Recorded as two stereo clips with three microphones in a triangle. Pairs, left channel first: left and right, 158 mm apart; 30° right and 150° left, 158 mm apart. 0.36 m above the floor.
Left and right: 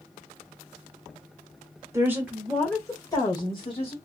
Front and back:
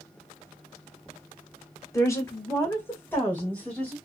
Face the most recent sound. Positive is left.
turn(degrees=50)